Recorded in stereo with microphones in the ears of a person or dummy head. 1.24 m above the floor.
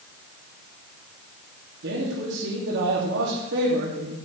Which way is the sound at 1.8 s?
65° right (ahead or behind).